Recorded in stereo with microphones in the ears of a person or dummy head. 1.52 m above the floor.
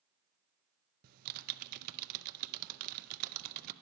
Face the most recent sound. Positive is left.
turn(degrees=-45)  # may be behind; listen again after turning